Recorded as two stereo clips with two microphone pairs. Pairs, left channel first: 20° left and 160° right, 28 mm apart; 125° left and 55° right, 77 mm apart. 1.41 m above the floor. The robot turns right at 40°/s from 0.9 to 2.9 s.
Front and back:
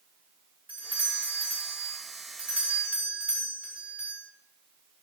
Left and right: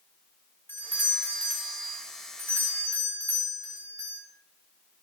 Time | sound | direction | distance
0.7 | a doorbell | straight behind | 7.5 m